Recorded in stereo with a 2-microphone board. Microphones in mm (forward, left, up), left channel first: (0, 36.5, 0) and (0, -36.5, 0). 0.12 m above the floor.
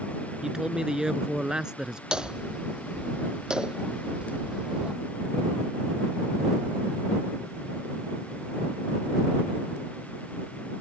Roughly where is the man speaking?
Centre.